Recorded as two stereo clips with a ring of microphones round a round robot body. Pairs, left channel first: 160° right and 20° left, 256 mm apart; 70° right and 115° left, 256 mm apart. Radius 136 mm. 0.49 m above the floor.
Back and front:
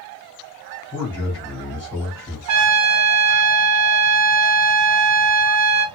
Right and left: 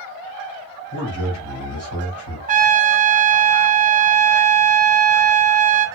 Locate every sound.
0.9 s a man speaking: 75° right, 2 m
2.5 s a trumpet: 50° left, 0.6 m